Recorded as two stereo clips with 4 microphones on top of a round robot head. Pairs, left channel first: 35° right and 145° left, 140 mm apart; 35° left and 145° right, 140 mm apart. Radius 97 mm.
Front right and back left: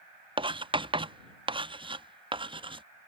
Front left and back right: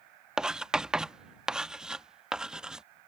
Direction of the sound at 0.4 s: 135° left.